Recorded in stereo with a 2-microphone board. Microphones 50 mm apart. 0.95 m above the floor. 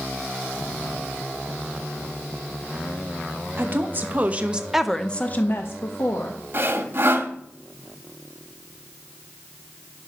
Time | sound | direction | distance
3.6 | a woman speaking | 45° right (ahead or behind) | 1.7 m
6.5 | sawing | 45° right (ahead or behind) | 1.6 m